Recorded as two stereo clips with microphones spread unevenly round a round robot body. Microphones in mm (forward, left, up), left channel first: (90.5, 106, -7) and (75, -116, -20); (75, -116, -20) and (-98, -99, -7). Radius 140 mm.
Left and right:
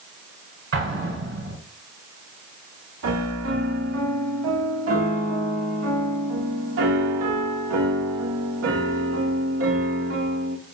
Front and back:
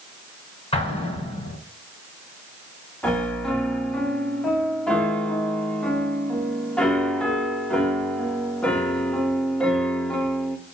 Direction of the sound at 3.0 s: 90° right.